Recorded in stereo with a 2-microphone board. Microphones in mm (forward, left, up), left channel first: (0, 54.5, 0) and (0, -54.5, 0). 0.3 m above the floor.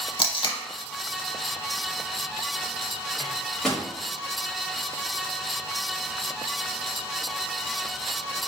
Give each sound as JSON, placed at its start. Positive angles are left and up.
{"t": 0.2, "sound": "tape being pulled", "side_deg": 50, "distance_m": 0.5}
{"t": 3.2, "sound": "a microwave", "side_deg": 5, "distance_m": 1.1}